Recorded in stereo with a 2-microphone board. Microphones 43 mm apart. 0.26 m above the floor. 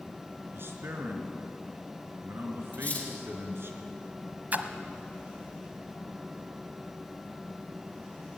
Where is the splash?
45° right (ahead or behind), 1.3 m.